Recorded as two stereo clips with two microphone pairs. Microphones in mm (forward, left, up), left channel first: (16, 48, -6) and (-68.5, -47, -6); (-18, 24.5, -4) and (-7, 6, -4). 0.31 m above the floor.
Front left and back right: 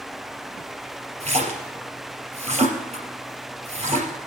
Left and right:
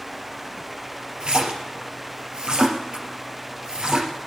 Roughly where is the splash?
Right.